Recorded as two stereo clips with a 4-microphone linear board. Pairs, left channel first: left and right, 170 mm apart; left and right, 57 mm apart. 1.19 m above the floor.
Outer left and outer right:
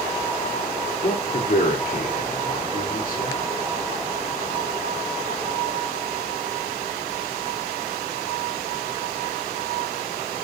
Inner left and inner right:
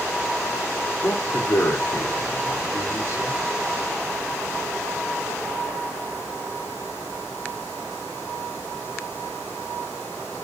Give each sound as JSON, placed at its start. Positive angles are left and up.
{"t": 1.0, "sound": "a man speaking", "side_deg": 60, "distance_m": 2.5}